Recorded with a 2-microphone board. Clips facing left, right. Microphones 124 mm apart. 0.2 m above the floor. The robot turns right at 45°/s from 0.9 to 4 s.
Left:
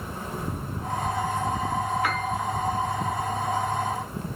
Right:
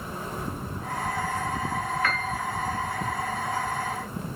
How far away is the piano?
About 0.7 m.